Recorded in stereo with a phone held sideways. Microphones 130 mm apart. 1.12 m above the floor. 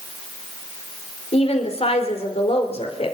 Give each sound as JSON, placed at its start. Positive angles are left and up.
{"t": 1.3, "sound": "a woman speaking", "side_deg": 50, "distance_m": 3.5}